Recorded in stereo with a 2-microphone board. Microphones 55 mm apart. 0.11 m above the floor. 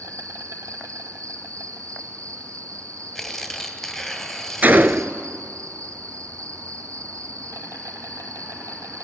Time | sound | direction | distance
0.0 | an insect | 70° right (ahead or behind) | 1.6 m
3.1 | tearing paper | centre (ahead or behind) | 2 m
4.6 | a gunshot | 35° right (ahead or behind) | 0.5 m